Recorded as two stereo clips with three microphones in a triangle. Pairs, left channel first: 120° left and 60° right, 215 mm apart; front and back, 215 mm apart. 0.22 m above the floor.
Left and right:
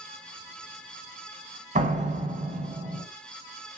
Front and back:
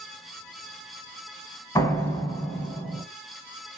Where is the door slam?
65° right, 0.9 m.